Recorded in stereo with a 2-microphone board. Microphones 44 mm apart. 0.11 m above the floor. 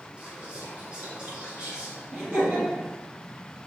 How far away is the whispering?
About 1.1 m.